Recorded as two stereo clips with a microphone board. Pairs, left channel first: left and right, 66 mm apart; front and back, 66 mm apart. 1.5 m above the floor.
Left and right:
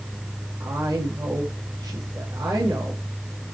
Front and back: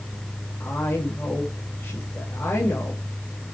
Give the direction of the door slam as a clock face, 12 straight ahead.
I don't hear a door slam.